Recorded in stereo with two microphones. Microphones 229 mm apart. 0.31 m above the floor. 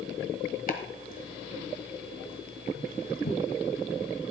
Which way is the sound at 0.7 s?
40° left (ahead or behind).